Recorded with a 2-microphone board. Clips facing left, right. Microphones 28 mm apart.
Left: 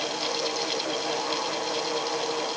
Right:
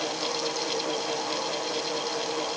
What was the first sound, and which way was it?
Only background noise.